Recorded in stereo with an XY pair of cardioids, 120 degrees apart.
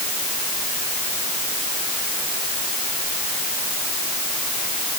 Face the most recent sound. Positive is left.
No sound to turn to.